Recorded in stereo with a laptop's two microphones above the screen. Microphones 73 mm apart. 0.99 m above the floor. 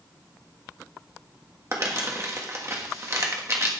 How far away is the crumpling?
About 1.5 m.